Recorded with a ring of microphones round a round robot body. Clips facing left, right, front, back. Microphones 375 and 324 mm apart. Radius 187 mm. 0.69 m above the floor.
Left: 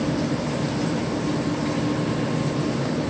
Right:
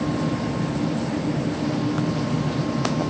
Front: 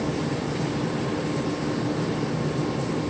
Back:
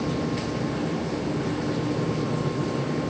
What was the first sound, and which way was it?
Only background noise.